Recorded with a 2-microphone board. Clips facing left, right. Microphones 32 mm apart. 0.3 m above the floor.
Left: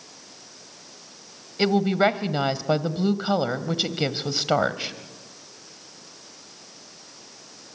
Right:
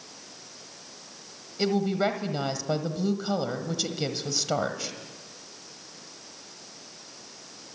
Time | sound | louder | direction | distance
1.6 | a woman speaking | left 5 dB | 40° left (ahead or behind) | 1.4 m